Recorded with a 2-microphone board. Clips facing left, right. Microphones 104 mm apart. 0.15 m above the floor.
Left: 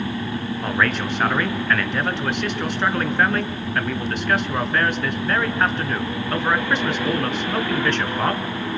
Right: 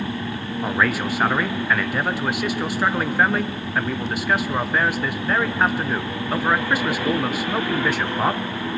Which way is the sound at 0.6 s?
5° right (ahead or behind).